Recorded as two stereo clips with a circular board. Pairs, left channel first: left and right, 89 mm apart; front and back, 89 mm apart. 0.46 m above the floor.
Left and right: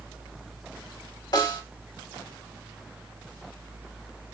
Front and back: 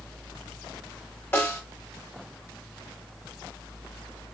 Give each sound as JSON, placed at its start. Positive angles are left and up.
{"t": 1.3, "sound": "a snare drum", "azimuth_deg": 55, "distance_m": 2.5}